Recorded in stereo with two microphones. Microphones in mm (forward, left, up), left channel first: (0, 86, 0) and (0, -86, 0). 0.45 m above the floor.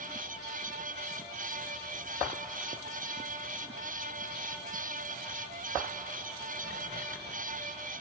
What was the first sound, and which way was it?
Only background noise.